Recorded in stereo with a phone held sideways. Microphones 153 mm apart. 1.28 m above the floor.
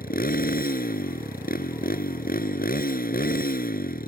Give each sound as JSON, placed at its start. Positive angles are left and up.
{"t": 0.0, "sound": "a motorcycle", "side_deg": 75}